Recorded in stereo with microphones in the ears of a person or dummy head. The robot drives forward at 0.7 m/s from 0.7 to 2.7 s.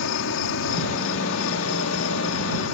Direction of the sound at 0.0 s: 70° left (ahead or behind).